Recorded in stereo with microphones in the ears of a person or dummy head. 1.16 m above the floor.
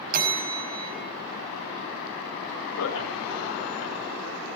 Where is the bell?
55° right (ahead or behind), 4.5 m.